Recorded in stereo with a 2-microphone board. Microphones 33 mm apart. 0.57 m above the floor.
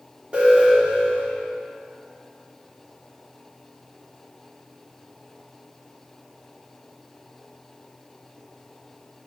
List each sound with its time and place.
0.3 s an alarm: 40° right (ahead or behind), 2.5 m